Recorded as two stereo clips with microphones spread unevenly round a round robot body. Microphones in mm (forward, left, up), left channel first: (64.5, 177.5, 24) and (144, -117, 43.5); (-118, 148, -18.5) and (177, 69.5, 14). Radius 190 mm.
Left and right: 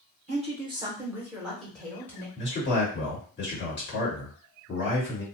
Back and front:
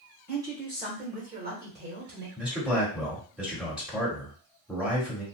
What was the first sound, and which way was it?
A woman speaking, 105° right.